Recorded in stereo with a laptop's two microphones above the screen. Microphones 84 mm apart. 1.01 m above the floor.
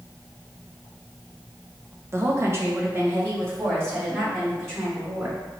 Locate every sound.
2.1 s a woman speaking: 30° right (ahead or behind), 0.7 m; by 5.4 s 25° right (ahead or behind), 3.5 m